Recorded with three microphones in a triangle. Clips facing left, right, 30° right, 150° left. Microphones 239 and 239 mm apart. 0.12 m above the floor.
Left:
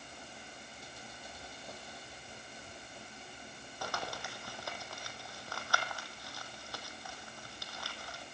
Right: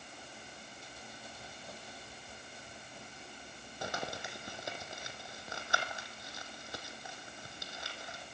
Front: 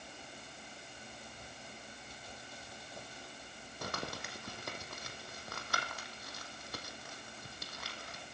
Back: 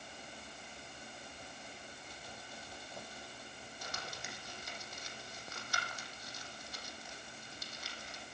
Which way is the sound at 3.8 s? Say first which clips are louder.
Right 2 dB, front 8 dB; 20° right.